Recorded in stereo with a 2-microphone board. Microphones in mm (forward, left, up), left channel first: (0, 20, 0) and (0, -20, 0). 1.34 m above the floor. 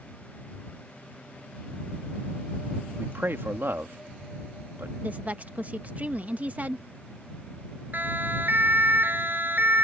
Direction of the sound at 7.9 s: 50° right (ahead or behind).